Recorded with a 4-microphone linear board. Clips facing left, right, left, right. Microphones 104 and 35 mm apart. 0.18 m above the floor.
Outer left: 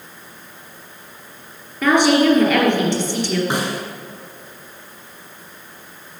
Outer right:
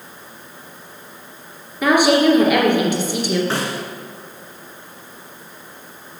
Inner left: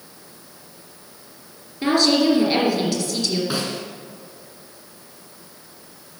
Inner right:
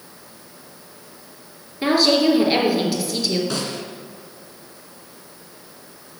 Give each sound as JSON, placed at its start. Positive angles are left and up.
{"t": 1.8, "sound": "a woman speaking", "side_deg": -10, "distance_m": 2.5}
{"t": 3.5, "sound": "a snare drum", "side_deg": 15, "distance_m": 1.7}